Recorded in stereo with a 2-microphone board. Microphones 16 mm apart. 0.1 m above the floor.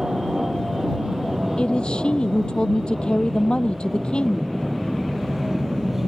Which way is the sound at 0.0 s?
35° right (ahead or behind).